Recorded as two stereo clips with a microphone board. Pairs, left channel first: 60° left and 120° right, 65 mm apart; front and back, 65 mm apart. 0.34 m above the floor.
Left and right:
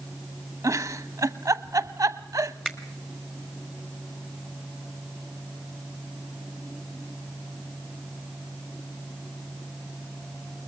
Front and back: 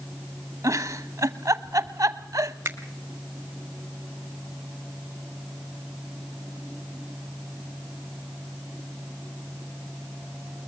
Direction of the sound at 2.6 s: 145° left.